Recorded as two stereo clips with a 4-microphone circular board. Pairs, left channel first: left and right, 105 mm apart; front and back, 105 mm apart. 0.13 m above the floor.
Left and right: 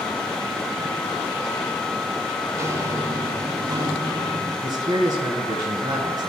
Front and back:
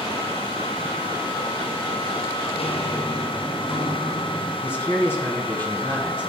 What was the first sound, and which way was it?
Footsteps, 25° right.